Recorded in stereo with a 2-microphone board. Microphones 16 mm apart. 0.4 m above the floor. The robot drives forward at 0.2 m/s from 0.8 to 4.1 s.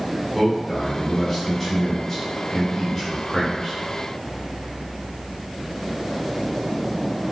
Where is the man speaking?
15° left (ahead or behind), 1.0 m.